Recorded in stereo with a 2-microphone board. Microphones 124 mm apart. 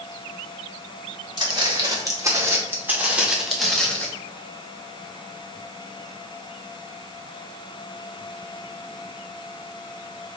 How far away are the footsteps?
About 1.9 m.